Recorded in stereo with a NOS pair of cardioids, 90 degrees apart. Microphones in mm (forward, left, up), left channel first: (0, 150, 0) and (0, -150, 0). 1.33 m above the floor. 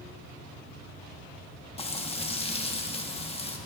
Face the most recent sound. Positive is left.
turn(degrees=20)